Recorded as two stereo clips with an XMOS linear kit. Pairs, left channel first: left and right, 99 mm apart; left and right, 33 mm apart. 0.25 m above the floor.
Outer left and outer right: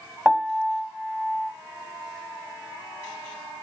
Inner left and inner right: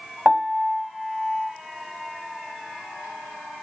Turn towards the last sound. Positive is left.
turn(degrees=-5)  # may be behind; listen again after turning